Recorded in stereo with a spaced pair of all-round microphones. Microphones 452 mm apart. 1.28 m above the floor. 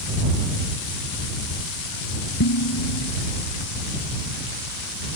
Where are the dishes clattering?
45° left (ahead or behind).